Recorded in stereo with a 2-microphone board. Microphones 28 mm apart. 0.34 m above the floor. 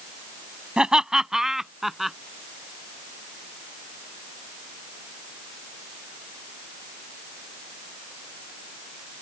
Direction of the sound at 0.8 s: 30° right (ahead or behind).